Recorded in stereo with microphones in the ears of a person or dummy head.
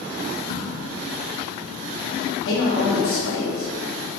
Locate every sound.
0.5 s a crack: 45° left (ahead or behind), 0.6 m
2.4 s a man speaking: 80° left, 1.2 m